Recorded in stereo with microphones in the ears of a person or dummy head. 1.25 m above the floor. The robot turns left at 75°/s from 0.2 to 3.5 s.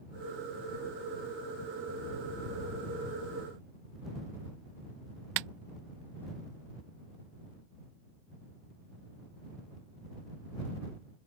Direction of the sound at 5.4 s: 65° right (ahead or behind).